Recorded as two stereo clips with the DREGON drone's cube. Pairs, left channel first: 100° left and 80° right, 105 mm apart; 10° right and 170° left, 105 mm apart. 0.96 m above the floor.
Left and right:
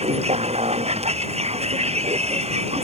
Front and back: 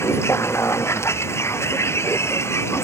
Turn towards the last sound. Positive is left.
turn(degrees=-75)